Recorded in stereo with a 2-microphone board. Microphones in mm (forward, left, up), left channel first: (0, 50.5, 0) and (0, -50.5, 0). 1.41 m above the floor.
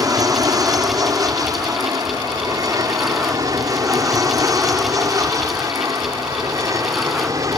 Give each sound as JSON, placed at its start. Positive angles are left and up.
{"t": 0.0, "sound": "an aircraft", "side_deg": -40}